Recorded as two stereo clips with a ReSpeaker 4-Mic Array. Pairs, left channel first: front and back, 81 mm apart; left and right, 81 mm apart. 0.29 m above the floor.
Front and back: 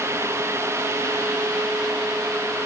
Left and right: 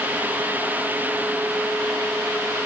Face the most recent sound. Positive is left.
No sound to turn to.